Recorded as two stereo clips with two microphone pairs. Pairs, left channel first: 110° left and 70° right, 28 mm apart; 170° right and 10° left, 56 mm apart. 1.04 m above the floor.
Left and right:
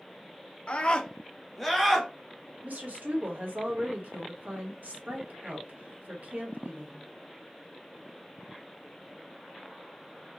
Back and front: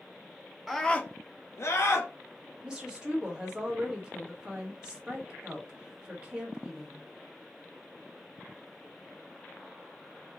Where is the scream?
105° left, 0.7 m; by 2.1 s 150° right, 1.5 m.